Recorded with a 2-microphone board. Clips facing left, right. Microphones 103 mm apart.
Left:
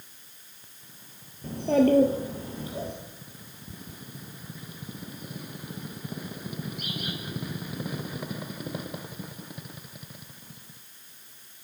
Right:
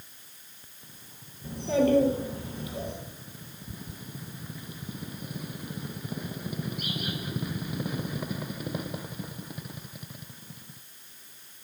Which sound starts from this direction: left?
A child speaking, at 1.4 s.